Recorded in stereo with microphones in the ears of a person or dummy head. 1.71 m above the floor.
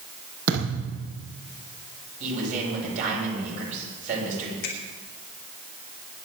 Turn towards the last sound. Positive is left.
turn(degrees=50)  # may be behind; listen again after turning